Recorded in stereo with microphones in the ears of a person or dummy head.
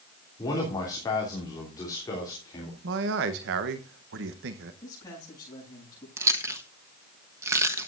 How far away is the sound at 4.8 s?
About 8 m.